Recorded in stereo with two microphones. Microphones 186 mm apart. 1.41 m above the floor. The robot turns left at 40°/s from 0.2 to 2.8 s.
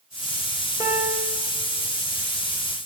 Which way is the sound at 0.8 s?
15° right (ahead or behind).